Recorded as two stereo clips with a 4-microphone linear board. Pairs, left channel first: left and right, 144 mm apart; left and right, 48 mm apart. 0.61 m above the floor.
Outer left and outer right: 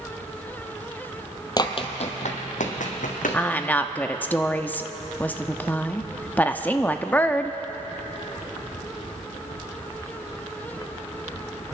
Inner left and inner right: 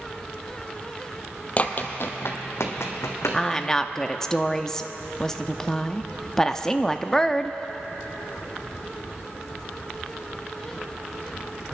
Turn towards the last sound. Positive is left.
turn(degrees=15)  # may be behind; listen again after turning